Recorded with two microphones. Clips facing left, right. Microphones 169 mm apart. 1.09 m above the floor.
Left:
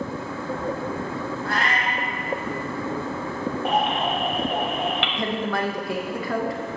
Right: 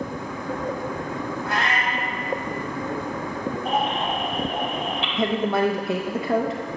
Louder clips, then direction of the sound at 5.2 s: Right 9 dB; 25° right (ahead or behind).